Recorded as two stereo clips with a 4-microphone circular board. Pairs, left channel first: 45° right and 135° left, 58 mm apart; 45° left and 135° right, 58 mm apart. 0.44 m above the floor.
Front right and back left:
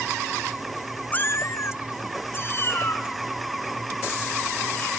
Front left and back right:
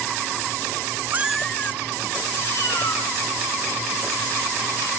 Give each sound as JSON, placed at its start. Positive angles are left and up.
{"t": 1.1, "sound": "a cat meowing", "azimuth_deg": -100, "distance_m": 0.5}